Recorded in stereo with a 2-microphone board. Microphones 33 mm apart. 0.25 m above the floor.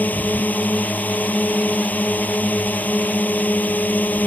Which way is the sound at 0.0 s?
65° left (ahead or behind).